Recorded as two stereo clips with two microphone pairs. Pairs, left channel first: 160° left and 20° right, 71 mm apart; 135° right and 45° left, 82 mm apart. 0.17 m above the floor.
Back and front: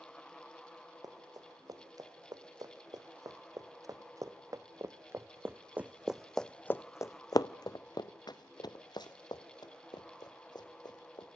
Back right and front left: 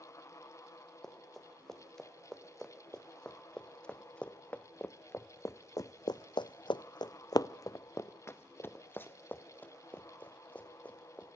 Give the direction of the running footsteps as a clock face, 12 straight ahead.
1 o'clock.